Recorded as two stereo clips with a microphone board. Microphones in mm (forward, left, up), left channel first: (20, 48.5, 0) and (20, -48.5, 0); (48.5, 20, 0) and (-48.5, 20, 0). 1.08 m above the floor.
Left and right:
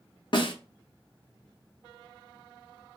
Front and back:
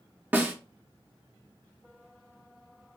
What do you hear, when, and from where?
0.3 s a snare drum: 110° left, 0.8 m